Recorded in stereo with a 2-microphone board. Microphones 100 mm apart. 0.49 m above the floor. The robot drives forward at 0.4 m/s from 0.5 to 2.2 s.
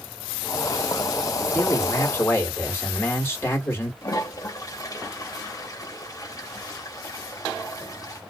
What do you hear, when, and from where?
1.5 s a man speaking: 25° left (ahead or behind), 1.3 m
4.0 s a toilet flushing: 35° left (ahead or behind), 0.8 m